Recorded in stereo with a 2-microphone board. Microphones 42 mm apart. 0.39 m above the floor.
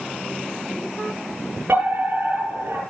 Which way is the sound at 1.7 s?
75° right (ahead or behind).